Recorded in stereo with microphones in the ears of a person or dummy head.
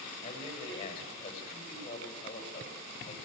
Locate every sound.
0.2 s a man speaking: 35° left (ahead or behind), 8 m